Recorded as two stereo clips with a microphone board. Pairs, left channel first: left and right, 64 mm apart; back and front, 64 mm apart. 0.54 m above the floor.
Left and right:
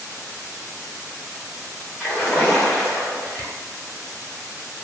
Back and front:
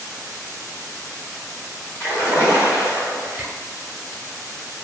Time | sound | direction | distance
2.0 | a splash | 160° left | 1.7 m
3.4 | a camera shutter | 75° right | 0.7 m